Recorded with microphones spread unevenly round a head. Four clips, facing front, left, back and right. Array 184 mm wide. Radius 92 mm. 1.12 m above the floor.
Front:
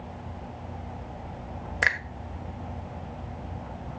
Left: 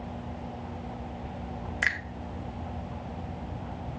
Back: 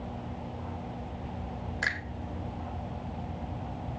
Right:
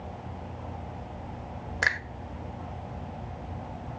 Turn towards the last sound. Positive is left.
turn(degrees=-20)